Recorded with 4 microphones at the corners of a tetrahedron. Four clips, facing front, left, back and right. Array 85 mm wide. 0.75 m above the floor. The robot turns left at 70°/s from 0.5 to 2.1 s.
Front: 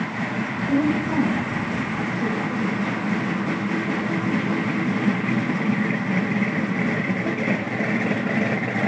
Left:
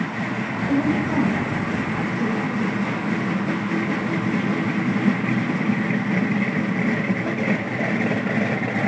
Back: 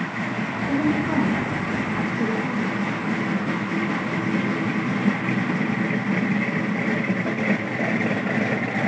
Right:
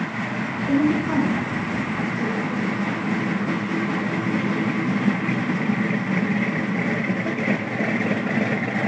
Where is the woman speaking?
85° right, 7.5 m; by 3.0 s 175° left, 7.5 m.